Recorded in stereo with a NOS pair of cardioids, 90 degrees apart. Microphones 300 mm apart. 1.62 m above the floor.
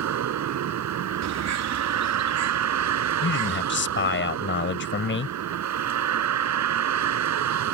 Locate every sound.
0.0 s a vehicle: 65° right
1.2 s a bird: 65° right
3.2 s a man speaking: 40° left